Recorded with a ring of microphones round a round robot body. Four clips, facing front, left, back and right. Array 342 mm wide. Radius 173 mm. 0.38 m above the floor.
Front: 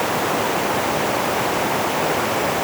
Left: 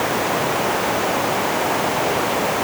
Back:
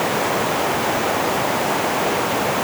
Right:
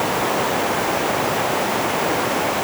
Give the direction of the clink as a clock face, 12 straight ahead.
No clink in this recording.